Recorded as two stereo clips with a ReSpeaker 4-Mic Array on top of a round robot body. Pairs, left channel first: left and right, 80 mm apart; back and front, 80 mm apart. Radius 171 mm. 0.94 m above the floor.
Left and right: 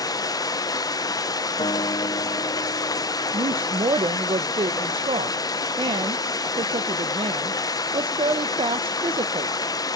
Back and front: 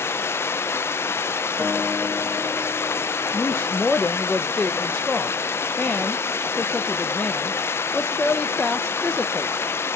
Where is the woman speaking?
100° right, 0.6 m.